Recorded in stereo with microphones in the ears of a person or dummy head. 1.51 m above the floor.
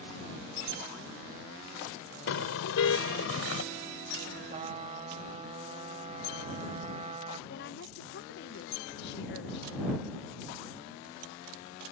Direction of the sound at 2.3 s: 75° left (ahead or behind).